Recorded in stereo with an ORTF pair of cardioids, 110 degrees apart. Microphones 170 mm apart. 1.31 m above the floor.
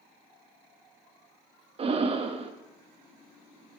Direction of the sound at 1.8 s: 35° right.